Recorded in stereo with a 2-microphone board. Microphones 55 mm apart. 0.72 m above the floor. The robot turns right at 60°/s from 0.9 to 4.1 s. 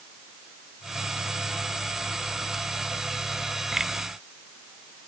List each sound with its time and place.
Only background noise.